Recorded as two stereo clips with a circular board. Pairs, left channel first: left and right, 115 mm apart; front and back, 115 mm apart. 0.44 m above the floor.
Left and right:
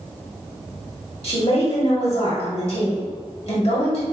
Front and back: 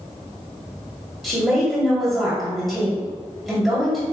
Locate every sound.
1.2 s a woman speaking: 95° left, 1.6 m